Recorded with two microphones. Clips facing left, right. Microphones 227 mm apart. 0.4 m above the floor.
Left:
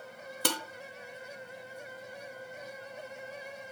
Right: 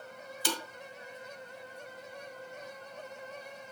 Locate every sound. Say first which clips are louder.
0.5 s dishes clattering: left 2 dB; 70° left (ahead or behind), 1.4 m